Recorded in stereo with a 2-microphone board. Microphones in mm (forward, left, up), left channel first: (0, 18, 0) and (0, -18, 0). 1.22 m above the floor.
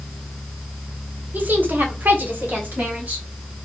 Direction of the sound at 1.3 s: 50° right (ahead or behind).